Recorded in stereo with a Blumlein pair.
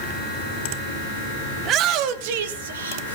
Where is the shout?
30° right, 1.6 m; by 3.1 s 70° right, 1.9 m.